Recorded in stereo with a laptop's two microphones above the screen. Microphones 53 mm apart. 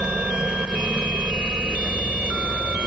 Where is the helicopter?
15° right (ahead or behind).